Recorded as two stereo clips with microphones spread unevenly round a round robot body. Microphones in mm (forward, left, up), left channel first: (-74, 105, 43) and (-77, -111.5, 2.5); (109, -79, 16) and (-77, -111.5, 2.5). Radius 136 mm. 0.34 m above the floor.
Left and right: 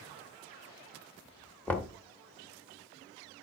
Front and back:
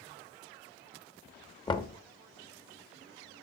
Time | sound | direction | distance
1.7 | knocking | 15° right | 0.7 m